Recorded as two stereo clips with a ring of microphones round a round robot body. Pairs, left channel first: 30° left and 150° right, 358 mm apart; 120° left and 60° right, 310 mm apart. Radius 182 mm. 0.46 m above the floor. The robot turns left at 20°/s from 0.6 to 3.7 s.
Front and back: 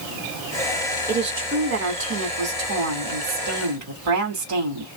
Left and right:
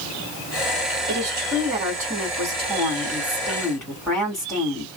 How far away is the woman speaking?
About 1.7 m.